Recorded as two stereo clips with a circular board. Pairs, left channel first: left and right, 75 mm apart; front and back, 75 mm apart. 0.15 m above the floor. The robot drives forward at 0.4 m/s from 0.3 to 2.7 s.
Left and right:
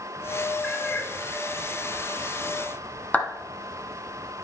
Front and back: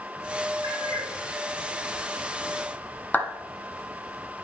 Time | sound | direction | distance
0.6 | a cat meowing | 150° left | 3 m
3.1 | a clap | 45° left | 1.3 m